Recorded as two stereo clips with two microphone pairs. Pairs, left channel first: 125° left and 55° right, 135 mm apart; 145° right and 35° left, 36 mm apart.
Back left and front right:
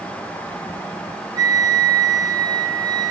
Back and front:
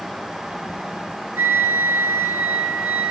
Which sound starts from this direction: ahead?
A flute, at 1.4 s.